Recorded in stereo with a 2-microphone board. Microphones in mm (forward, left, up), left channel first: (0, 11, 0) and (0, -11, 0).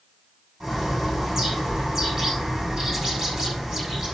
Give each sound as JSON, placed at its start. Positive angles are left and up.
{"t": 0.6, "sound": "a bird", "side_deg": -25, "distance_m": 6.0}